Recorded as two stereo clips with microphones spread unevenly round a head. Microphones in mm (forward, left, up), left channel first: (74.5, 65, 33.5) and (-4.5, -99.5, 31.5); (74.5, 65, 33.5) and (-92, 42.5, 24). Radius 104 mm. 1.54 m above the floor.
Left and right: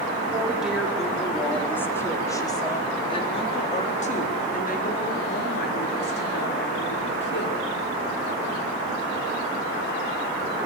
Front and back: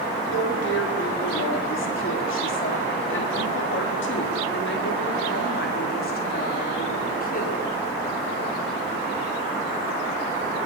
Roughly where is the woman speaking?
Ahead right.